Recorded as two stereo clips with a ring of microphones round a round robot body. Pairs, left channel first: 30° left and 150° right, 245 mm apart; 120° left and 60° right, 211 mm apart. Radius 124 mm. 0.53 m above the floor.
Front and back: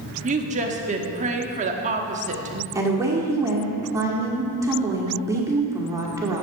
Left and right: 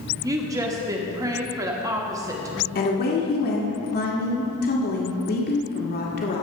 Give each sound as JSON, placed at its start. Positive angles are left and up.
{"t": 0.2, "sound": "a woman speaking", "azimuth_deg": -120, "distance_m": 1.1}
{"t": 2.8, "sound": "a woman speaking", "azimuth_deg": 135, "distance_m": 1.6}